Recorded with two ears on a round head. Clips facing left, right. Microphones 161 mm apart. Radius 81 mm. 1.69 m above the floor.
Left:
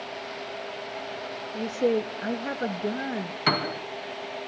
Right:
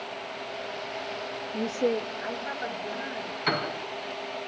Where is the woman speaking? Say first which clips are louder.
Left 2 dB; 20° right (ahead or behind), 0.6 m; by 3.4 s 65° left (ahead or behind), 1.9 m.